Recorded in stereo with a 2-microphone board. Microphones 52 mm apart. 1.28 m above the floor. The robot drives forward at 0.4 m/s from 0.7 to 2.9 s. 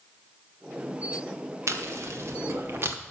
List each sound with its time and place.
1.7 s chewing: 70° right (ahead or behind), 0.8 m; by 3.0 s 50° right (ahead or behind), 1.0 m